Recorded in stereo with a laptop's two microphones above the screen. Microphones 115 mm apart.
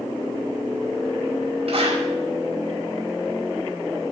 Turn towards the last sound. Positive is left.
turn(degrees=-60)  # may be behind; listen again after turning